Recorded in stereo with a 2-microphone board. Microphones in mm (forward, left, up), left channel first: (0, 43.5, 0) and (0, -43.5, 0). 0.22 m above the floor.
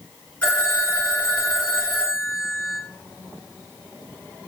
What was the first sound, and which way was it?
A phone ringing, 15° left (ahead or behind).